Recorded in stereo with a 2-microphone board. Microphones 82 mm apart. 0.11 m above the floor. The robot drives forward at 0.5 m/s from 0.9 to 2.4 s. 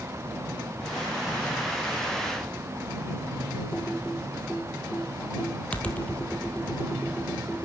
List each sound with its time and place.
3.7 s typing on a keyboard: 15° left (ahead or behind), 1.7 m